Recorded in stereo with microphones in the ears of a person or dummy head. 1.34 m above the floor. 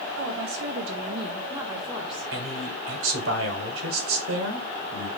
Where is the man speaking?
70° right (ahead or behind), 1.5 m.